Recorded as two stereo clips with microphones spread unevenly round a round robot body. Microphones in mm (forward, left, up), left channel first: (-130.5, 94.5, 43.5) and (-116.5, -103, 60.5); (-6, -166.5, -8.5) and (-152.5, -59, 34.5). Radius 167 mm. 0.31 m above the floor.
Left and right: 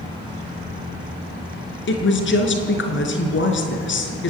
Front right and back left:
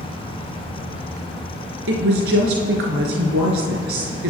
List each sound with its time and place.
1.9 s a woman speaking: 110° left, 4 m